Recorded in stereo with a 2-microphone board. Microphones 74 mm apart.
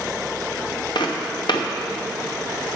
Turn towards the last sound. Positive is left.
turn(degrees=90)